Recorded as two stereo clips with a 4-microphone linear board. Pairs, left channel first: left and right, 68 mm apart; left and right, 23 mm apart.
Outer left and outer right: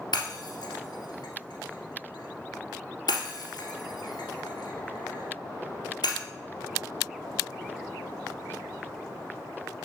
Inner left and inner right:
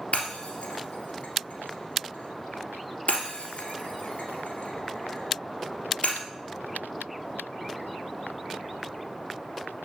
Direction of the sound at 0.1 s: 80° left.